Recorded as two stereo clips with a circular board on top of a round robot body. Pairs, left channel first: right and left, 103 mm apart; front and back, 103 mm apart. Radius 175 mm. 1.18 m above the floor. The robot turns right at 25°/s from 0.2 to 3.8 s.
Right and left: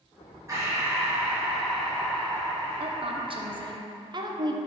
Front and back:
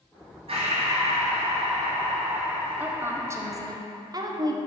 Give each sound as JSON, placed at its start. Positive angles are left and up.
{"t": 0.5, "sound": "breathing", "azimuth_deg": 150, "distance_m": 1.7}
{"t": 2.8, "sound": "a woman speaking", "azimuth_deg": 105, "distance_m": 1.0}